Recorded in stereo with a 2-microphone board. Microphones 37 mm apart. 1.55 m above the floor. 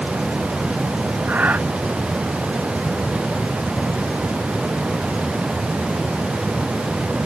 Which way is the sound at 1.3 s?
55° right (ahead or behind).